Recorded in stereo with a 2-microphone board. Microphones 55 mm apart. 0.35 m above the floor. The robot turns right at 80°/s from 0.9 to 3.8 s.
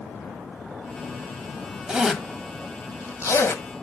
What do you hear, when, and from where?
1.9 s a zipper: 20° right (ahead or behind), 1.6 m; by 3.6 s 50° left (ahead or behind), 1.6 m